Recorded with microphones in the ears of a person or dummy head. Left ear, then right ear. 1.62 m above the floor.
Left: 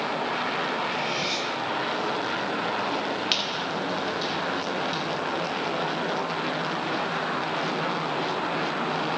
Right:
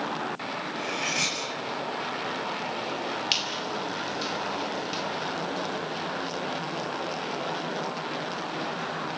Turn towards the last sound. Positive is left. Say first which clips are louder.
# even
turn(degrees=-10)  # may be behind; listen again after turning